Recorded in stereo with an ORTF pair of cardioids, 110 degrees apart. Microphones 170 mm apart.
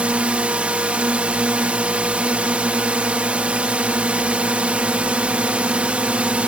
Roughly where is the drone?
Ahead.